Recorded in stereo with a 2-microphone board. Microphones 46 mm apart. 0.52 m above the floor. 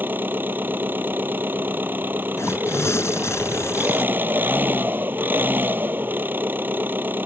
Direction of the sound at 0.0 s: 50° right (ahead or behind).